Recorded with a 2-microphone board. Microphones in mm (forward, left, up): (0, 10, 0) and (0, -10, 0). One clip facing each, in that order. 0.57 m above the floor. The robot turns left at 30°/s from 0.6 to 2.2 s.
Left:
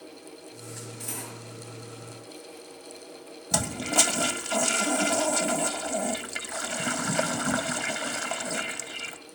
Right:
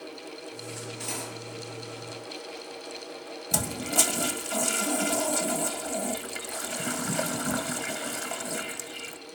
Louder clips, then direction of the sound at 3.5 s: Left 2 dB; 20° left (ahead or behind).